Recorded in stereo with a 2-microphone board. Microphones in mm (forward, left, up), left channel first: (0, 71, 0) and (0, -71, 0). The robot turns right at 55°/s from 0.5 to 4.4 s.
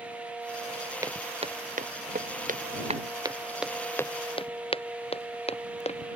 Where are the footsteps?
20° right (ahead or behind); by 6.1 s 50° left (ahead or behind).